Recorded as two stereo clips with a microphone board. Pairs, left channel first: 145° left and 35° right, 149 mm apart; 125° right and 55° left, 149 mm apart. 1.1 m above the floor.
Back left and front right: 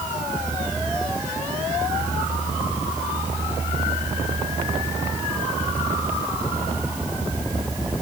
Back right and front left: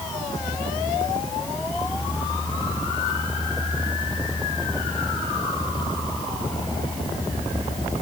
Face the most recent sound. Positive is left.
No sound to turn to.